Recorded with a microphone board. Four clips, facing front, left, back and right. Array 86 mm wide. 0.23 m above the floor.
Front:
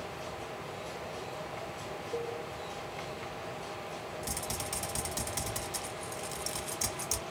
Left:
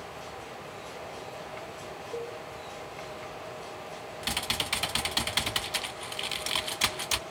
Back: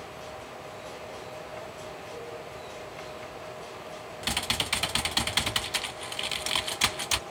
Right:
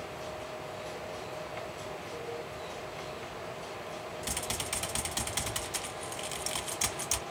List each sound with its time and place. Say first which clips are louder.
2.1 s a cowbell: left 5 dB, front 6 dB; 35° left, 3 m
4.2 s typing on a keyboard: left 3 dB, back 5 dB; 155° left, 0.8 m